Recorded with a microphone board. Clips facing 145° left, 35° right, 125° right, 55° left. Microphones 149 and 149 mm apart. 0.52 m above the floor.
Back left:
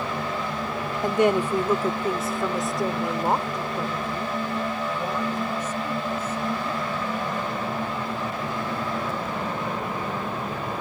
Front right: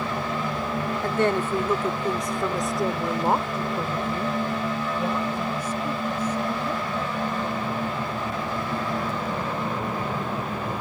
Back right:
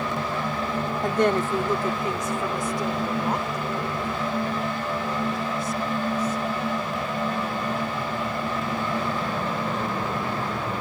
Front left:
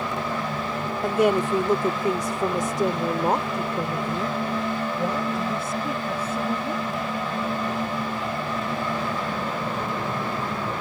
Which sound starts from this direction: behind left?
A woman speaking, at 1.0 s.